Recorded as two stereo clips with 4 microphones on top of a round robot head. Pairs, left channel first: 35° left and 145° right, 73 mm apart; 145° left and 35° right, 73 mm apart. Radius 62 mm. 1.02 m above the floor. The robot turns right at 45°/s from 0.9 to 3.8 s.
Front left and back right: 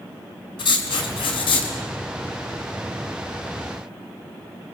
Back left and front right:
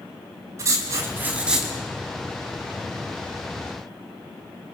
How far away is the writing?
About 4 m.